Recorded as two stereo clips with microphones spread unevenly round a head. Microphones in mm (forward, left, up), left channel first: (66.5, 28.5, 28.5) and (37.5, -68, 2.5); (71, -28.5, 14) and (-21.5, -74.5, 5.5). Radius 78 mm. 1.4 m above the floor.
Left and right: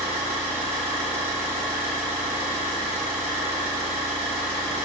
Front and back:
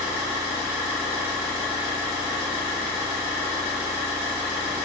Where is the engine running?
175° left, 1.9 m.